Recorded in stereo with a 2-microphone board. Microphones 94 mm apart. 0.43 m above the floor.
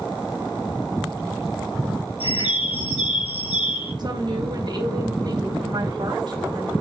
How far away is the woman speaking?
About 3 m.